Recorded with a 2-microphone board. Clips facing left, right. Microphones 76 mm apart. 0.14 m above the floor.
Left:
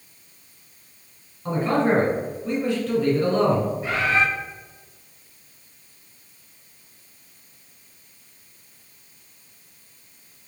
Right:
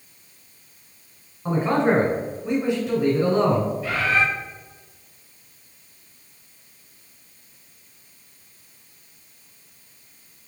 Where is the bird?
25° left (ahead or behind), 1.3 m.